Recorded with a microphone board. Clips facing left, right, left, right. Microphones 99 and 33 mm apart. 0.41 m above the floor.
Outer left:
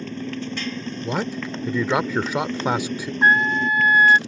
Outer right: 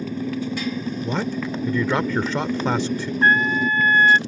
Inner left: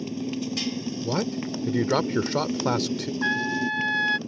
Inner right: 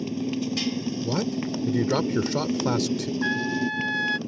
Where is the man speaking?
10° left (ahead or behind).